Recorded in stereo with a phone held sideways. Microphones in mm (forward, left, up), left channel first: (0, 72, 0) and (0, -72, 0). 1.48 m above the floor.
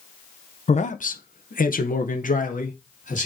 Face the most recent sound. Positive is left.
turn(degrees=55)  # may be behind; listen again after turning